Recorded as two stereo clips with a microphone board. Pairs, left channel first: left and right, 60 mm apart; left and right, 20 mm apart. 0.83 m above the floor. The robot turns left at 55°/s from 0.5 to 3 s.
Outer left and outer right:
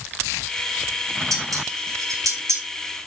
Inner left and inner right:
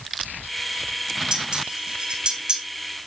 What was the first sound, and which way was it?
Dishes clattering, 60° right (ahead or behind).